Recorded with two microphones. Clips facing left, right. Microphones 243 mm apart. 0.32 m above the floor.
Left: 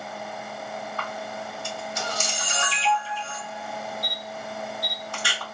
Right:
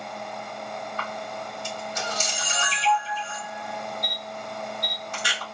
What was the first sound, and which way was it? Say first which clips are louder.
A camera shutter: even; 20° right (ahead or behind).